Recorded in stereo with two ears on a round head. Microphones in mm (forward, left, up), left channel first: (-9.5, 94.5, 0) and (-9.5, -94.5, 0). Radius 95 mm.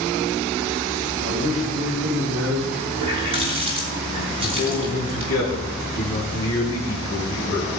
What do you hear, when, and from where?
1.2 s a man speaking: 75° right (ahead or behind), 8 m; by 2.8 s 80° right, 8.5 m
2.9 s a running tap: 25° right (ahead or behind), 5 m
4.4 s a man speaking: 15° left (ahead or behind), 4.5 m